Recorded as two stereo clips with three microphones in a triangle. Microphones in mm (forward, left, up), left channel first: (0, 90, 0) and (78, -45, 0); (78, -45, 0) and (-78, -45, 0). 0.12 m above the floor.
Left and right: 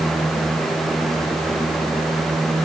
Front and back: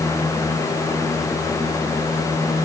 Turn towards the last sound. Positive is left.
No sound to turn to.